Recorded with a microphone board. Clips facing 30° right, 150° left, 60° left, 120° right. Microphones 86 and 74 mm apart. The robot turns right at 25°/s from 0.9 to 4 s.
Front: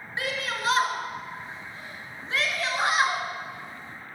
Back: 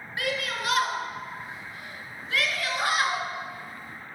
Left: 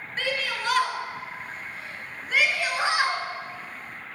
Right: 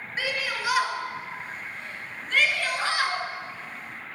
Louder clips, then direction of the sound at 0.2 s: Even, left 1 dB; 45° right.